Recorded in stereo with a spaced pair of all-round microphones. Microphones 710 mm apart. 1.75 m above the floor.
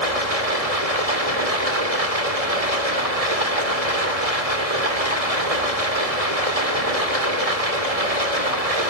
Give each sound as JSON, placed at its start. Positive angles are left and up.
{"t": 0.0, "sound": "running water", "side_deg": -55, "distance_m": 2.5}